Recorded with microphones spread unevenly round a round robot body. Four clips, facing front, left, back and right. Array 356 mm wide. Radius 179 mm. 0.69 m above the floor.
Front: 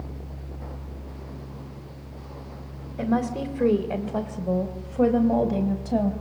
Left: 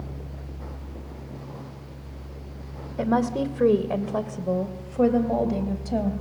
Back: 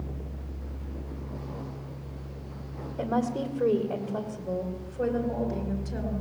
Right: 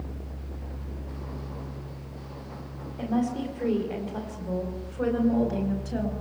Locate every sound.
3.0 s a woman speaking: 60° left, 2.5 m; by 6.1 s 25° left, 4 m